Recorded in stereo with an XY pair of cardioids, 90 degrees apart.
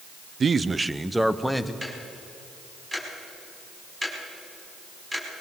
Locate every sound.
0.4 s a man speaking: 45° right, 0.8 m; by 1.7 s 5° left, 1.6 m
1.8 s ticking: 20° right, 5.5 m